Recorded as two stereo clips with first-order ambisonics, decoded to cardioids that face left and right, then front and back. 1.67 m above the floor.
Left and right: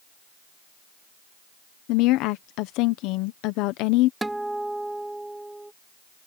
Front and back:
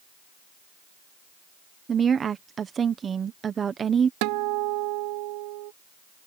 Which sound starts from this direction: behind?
A guitar, at 4.2 s.